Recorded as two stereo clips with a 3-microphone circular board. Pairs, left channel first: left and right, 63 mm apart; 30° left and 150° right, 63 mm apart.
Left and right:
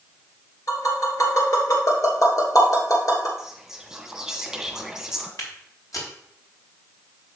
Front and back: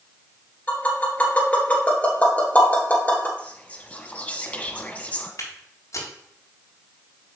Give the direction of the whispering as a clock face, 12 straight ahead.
12 o'clock.